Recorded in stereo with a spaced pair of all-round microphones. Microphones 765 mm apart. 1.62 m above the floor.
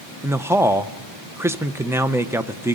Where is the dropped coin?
I don't hear a dropped coin.